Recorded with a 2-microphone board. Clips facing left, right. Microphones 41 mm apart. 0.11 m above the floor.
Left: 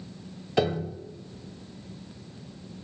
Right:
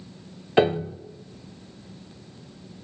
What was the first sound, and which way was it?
A piano, 30° right (ahead or behind).